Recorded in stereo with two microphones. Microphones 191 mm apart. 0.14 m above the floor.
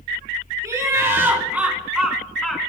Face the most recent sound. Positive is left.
turn(degrees=5)  # may be behind; listen again after turning